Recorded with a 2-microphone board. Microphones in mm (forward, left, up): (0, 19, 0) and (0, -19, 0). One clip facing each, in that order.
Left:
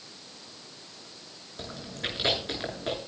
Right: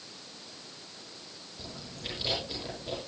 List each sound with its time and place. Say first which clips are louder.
1.6 s chewing: left 7 dB; 70° left (ahead or behind), 7.5 m